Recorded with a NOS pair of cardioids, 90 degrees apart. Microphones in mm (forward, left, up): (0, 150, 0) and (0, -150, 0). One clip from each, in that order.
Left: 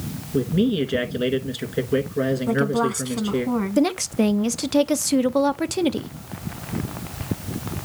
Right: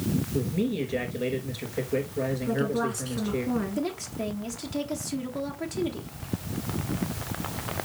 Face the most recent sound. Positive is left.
turn(degrees=65)